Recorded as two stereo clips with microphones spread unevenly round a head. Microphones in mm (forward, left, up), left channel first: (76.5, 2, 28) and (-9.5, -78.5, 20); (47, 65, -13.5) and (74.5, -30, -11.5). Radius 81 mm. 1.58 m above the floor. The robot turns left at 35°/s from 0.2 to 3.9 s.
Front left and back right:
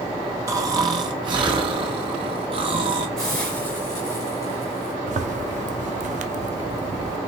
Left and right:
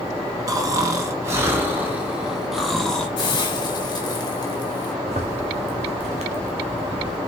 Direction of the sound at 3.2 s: 125° left.